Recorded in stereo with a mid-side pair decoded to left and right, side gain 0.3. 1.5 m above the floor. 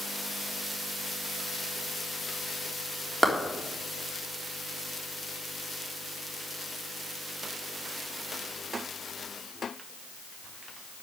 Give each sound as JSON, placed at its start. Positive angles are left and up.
{"t": 3.2, "sound": "a clap", "azimuth_deg": -15, "distance_m": 4.0}